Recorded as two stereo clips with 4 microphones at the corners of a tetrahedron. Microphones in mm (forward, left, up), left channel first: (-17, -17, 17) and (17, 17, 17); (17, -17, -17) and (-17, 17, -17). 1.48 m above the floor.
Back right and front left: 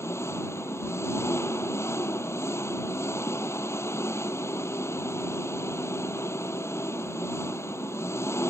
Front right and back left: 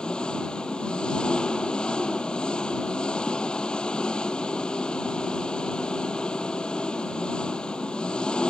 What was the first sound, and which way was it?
An engine running, 115° right.